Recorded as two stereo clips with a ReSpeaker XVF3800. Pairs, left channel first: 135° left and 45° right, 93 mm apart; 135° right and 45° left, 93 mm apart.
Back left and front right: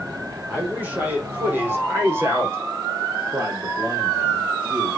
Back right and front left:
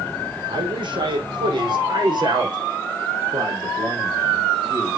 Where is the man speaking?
25° left, 5.5 m; by 5.0 s straight ahead, 5 m.